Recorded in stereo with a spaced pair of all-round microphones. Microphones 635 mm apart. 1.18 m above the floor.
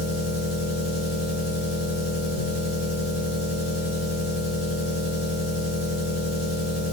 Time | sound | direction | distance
0.0 | an engine running | 65° left (ahead or behind) | 2.5 m